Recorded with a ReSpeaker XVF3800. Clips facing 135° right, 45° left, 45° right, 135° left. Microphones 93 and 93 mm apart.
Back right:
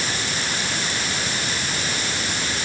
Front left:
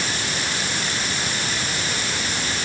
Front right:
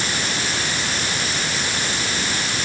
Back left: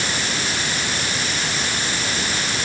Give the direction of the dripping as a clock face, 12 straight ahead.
I don't hear dripping.